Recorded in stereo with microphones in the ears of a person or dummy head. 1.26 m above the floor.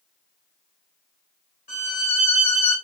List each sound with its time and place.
1.7 s a violin: 40° left (ahead or behind), 1.6 m